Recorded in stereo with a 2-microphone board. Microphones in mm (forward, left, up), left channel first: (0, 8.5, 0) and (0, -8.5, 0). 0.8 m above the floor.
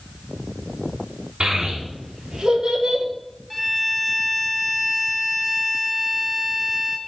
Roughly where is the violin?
Centre.